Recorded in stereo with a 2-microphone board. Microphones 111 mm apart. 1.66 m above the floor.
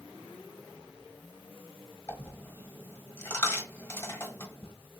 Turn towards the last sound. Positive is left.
turn(degrees=20)  # may be behind; listen again after turning